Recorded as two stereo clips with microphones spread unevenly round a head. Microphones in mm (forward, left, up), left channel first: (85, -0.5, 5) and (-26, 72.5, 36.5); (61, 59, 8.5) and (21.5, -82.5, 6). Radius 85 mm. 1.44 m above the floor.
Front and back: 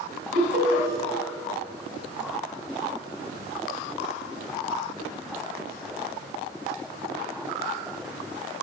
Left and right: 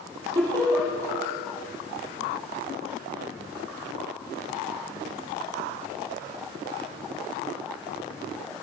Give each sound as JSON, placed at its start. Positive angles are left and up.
{"t": 0.3, "sound": "laughter", "azimuth_deg": -175, "distance_m": 2.5}